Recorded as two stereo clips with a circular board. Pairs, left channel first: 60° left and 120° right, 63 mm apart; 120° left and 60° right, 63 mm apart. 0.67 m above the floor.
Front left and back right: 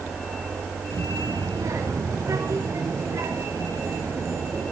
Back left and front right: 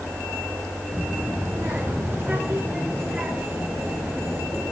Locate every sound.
0.9 s a child speaking: 110° right, 6 m; by 4.7 s 130° right, 9.5 m